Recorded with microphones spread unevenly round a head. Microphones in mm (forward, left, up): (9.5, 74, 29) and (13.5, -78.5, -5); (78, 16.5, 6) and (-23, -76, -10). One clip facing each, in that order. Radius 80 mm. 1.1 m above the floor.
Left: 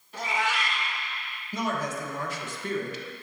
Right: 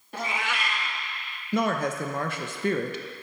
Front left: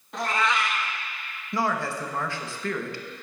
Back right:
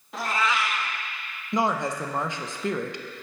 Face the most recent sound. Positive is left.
turn(degrees=-70)